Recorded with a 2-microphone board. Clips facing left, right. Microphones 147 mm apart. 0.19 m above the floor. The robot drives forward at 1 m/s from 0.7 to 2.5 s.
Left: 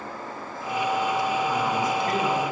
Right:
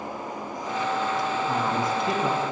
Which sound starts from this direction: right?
A man speaking, at 1.5 s.